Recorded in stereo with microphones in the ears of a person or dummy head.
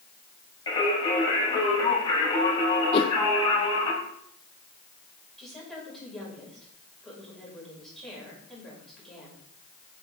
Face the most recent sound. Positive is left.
turn(degrees=0)  # may be behind; listen again after turning